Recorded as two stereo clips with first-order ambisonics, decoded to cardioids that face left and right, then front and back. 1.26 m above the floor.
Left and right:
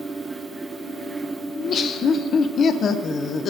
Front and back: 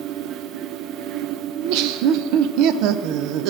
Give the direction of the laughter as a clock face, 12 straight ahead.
7 o'clock.